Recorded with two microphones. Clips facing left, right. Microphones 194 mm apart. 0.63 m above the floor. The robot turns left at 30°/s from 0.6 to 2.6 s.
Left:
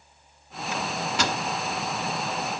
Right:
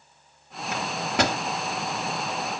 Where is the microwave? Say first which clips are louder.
Right 3 dB; 60° right (ahead or behind), 0.9 m; by 1.4 s 55° right (ahead or behind), 0.9 m.